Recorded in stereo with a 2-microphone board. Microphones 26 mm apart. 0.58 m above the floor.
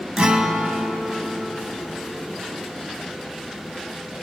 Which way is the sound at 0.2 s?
40° right (ahead or behind).